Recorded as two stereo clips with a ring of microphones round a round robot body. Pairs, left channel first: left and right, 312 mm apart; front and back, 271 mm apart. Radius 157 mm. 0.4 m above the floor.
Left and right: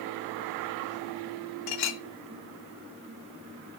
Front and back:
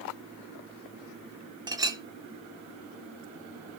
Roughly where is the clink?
Left.